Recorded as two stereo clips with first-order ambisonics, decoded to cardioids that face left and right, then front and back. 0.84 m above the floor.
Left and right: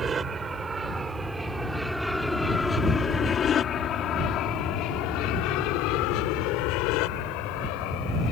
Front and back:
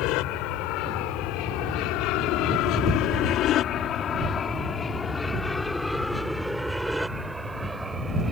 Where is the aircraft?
25° right; by 8.3 s 105° left.